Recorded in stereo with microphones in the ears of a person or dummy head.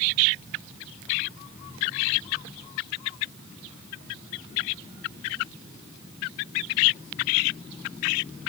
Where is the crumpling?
I don't hear crumpling.